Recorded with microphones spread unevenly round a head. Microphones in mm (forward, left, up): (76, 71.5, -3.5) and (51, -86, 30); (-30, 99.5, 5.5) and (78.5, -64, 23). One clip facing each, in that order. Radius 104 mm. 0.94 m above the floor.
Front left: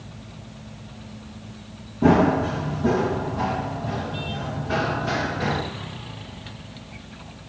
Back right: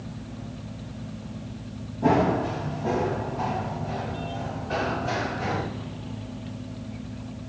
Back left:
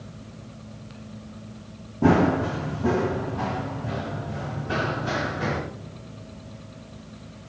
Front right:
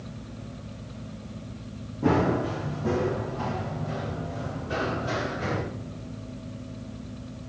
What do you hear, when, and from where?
2.0 s running footsteps: 130° left, 2.5 m; by 5.6 s 115° left, 5 m